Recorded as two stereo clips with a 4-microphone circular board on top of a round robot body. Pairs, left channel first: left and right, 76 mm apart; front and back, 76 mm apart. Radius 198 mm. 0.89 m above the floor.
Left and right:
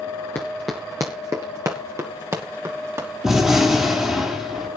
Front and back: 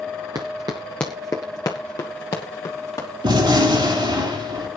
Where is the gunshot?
175° right, 4.5 m.